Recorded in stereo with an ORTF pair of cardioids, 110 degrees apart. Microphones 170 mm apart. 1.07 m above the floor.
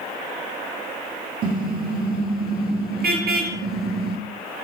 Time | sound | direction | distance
1.4 | a car horn | 60° right | 8 m